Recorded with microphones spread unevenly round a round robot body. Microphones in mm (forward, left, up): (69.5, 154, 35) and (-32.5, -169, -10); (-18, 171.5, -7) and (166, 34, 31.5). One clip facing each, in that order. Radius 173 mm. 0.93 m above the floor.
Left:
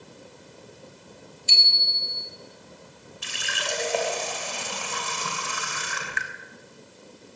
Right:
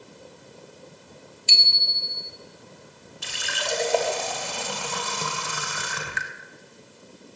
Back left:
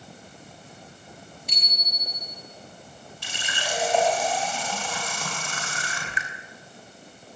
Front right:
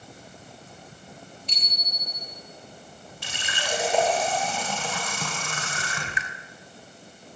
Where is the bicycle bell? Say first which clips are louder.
Right 1 dB, back left 1 dB; 135° right, 3.5 m.